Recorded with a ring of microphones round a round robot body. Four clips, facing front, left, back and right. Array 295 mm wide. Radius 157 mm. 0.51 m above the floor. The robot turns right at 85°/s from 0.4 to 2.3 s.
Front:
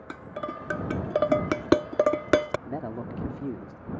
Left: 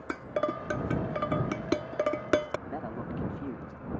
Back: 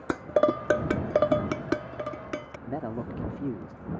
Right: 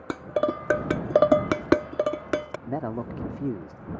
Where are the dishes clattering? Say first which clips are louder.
Right 5 dB, back 12 dB; 160° right; by 2.6 s straight ahead.